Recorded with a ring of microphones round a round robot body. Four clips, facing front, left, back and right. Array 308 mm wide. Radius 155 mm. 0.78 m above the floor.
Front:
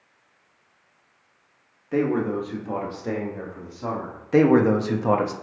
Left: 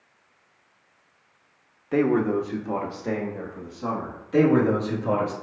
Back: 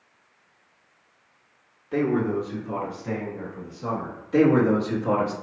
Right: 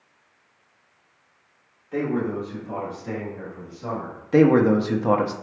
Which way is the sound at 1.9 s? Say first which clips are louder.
Left 4 dB, even; 80° left.